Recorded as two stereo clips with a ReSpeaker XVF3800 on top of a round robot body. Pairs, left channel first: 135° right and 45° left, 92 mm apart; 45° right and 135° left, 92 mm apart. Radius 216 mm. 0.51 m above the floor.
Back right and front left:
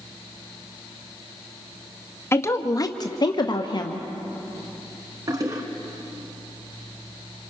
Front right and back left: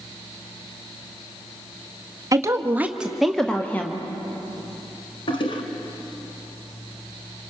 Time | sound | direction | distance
2.3 | a woman speaking | 170° left | 1.3 m
5.3 | a toilet flushing | 10° right | 1.7 m